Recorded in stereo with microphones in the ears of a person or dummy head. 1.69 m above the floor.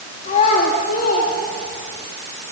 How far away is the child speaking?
About 2.5 m.